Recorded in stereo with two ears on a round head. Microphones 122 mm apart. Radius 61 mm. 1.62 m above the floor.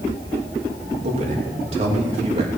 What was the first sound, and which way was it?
A man speaking, 50° right (ahead or behind).